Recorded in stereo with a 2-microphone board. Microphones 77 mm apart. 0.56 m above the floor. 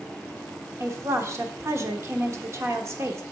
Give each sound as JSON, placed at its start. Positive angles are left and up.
{"t": 0.8, "sound": "a woman speaking", "side_deg": -40, "distance_m": 1.1}